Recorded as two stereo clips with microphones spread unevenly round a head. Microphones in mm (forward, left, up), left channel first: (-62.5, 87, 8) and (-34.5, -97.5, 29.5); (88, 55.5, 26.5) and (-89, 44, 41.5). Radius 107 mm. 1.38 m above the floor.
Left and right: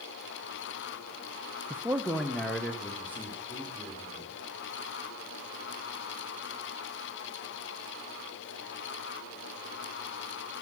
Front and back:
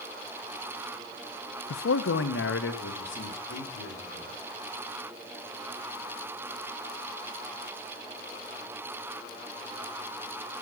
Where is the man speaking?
Straight ahead, 0.7 m; by 4.3 s 15° left, 4.5 m.